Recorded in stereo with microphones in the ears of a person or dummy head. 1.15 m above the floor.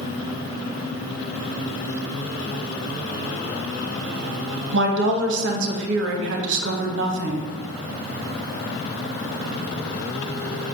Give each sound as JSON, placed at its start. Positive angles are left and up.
{"t": 4.7, "sound": "a woman speaking", "side_deg": -65, "distance_m": 0.7}